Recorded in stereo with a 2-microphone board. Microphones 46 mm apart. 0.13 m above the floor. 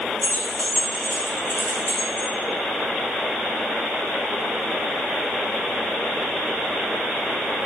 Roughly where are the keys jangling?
Left.